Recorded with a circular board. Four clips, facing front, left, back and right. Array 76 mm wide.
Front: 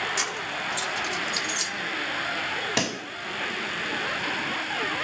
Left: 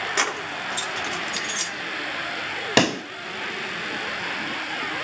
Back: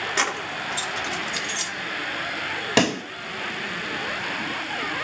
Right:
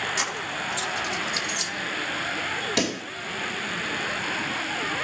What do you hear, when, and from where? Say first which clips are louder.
0.2 s keys jangling: left 3 dB, back 4 dB; 130° left, 0.7 m
2.8 s a pop: left 9 dB, back 12 dB; 120° left, 0.6 m